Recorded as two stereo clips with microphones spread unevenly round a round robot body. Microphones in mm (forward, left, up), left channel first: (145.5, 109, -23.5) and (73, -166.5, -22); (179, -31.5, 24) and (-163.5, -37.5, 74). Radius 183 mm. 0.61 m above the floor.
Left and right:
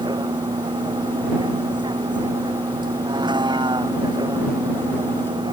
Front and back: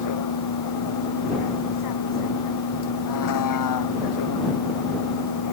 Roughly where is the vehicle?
Ahead right.